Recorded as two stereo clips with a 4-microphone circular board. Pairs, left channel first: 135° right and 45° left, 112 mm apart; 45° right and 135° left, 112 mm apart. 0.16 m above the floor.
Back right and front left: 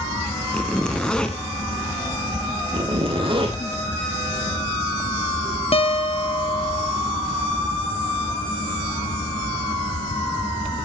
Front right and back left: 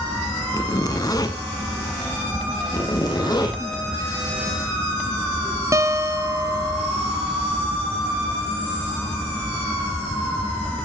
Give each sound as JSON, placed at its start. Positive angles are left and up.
{"t": 0.5, "sound": "a zipper", "azimuth_deg": -60, "distance_m": 1.1}
{"t": 2.7, "sound": "a zipper", "azimuth_deg": 5, "distance_m": 2.5}
{"t": 5.7, "sound": "a guitar", "azimuth_deg": -165, "distance_m": 0.8}